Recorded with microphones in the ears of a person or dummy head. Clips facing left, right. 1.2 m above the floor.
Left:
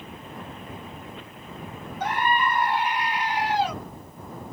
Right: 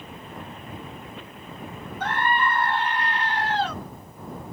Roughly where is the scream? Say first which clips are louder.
Even; centre.